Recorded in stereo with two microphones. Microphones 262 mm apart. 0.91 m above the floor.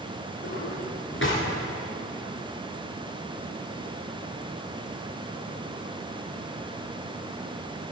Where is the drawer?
50° left (ahead or behind), 3.5 m.